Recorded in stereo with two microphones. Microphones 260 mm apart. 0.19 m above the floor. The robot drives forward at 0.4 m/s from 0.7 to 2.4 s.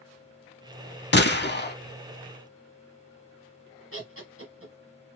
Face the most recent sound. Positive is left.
turn(degrees=-50)  # may be behind; listen again after turning